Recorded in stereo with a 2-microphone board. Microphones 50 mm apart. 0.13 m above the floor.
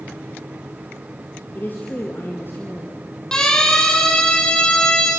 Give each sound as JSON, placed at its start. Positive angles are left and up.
{"t": 1.6, "sound": "a woman speaking", "side_deg": 40, "distance_m": 2.5}
{"t": 3.3, "sound": "a siren", "side_deg": 15, "distance_m": 6.5}